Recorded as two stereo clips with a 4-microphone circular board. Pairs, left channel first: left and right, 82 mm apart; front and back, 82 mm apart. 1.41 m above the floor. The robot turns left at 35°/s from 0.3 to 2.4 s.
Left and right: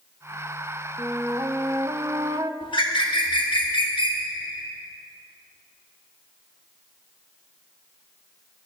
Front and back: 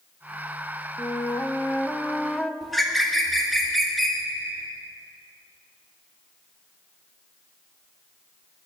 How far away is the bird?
About 1.5 m.